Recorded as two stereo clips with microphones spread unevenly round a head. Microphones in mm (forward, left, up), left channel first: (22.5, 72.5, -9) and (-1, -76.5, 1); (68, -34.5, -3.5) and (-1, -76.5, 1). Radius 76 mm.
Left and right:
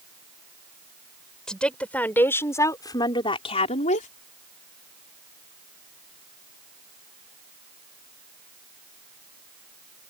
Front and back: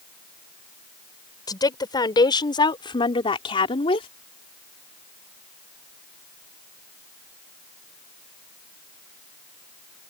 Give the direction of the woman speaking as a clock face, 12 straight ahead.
12 o'clock.